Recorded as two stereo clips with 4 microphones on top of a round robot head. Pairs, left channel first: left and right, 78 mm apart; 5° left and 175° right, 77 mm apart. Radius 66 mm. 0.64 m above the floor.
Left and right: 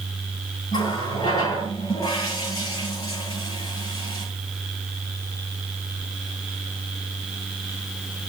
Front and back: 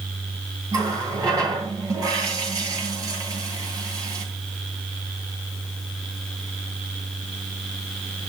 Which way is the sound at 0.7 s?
145° left.